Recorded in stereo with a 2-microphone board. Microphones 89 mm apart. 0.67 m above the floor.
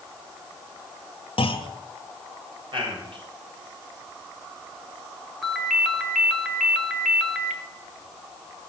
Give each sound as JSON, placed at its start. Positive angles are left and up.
{"t": 1.4, "sound": "a clunk", "side_deg": 75, "distance_m": 0.7}
{"t": 2.7, "sound": "a man speaking", "side_deg": -65, "distance_m": 3.5}
{"t": 5.4, "sound": "a ringtone", "side_deg": 0, "distance_m": 1.4}